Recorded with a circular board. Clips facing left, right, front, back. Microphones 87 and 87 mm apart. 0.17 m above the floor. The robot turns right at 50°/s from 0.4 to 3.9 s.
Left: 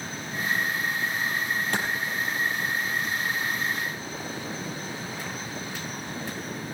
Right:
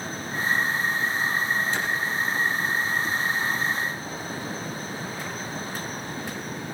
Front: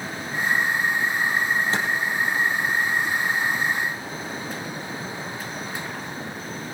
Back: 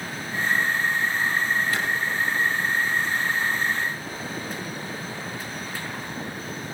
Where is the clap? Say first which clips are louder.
Even, front 2 dB; 60° left, 3.5 m; by 1.9 s 65° left, 3.5 m.